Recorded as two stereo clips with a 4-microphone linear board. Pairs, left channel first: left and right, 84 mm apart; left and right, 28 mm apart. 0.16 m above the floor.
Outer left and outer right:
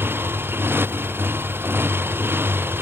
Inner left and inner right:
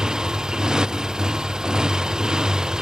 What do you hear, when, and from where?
0.0 s a motorcycle: 25° right (ahead or behind)